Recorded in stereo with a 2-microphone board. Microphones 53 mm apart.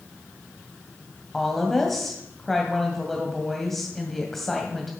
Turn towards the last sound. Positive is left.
turn(degrees=5)  # may be behind; listen again after turning